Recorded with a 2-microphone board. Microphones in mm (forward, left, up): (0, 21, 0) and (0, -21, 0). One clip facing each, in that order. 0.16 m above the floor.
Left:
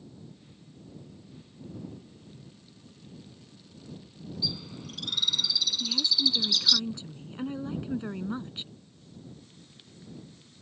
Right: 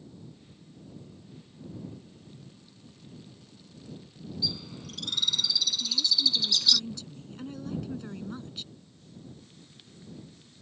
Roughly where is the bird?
Centre.